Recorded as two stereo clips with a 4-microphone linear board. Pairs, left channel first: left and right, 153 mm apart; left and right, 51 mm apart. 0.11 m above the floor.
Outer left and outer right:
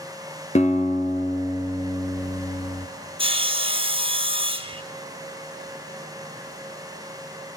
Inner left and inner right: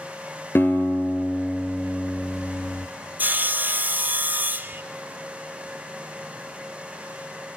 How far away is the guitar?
About 1.6 m.